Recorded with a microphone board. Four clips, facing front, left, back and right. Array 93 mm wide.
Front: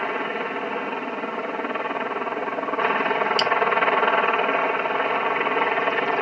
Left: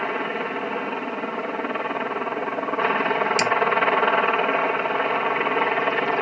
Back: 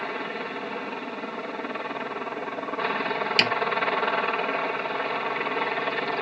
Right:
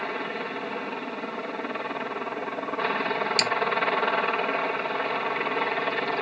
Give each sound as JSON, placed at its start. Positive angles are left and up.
{"t": 0.0, "sound": "a helicopter", "azimuth_deg": 40}
{"t": 3.4, "sound": "a snare drum", "azimuth_deg": 155}